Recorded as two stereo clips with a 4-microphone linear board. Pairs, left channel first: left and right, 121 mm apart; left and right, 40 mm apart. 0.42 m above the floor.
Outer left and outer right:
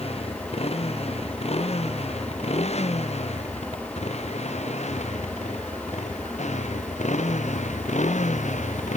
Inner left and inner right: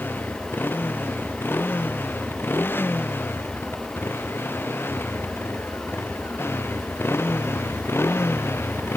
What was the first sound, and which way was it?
A motorcycle, 55° left (ahead or behind).